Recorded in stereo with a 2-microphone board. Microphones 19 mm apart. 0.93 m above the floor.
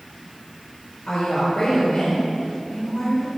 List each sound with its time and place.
1.1 s a woman speaking: 75° left (ahead or behind), 4 m